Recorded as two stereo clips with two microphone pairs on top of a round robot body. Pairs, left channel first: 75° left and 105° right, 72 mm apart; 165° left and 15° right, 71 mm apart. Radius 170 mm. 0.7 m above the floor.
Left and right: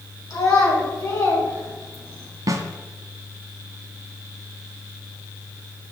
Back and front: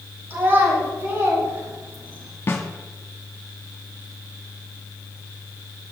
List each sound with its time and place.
0.3 s a child speaking: 40° left, 4.5 m; by 2.3 s 25° left, 5 m
2.5 s a snare drum: 145° right, 1.3 m